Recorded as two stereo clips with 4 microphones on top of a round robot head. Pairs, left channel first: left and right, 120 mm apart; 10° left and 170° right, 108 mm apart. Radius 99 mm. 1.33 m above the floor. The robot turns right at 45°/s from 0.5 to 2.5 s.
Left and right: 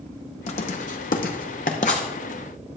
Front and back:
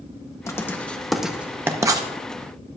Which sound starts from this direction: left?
Writing, at 0.5 s.